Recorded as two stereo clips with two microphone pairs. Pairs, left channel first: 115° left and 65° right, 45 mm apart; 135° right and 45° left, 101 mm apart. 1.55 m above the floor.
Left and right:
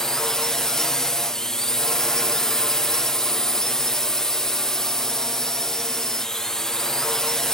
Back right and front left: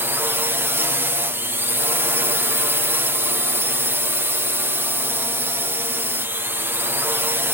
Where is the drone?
55° left.